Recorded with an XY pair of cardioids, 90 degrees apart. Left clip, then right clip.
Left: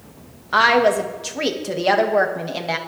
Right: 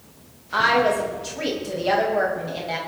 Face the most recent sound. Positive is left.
turn(degrees=60)